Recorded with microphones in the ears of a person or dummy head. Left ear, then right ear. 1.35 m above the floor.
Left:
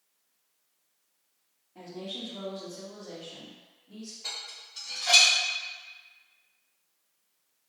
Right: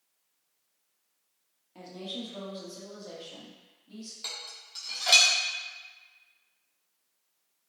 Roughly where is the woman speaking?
Right.